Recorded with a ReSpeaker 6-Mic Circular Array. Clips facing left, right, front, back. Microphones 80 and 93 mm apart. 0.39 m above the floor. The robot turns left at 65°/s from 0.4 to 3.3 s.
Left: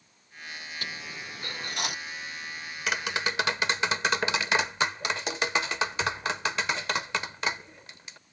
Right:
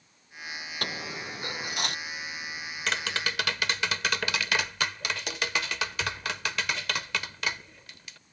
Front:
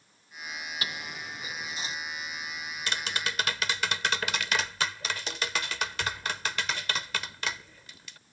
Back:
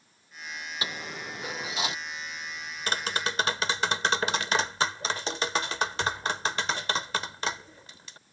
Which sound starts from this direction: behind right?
A dropped coin, at 0.8 s.